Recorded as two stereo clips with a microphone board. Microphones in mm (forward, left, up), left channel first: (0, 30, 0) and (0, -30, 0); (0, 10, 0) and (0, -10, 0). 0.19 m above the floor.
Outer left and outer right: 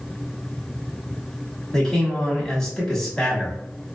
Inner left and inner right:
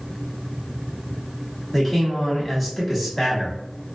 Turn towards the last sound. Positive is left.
turn(degrees=10)  # may be behind; listen again after turning